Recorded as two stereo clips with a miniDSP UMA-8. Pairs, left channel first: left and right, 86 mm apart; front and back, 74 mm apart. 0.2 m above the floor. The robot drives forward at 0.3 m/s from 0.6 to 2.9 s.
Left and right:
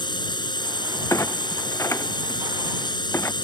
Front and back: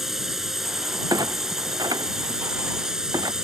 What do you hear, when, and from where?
0.0 s a drone: 95° left; by 3.4 s 100° left
1.1 s a clunk: 145° left; by 3.3 s 150° left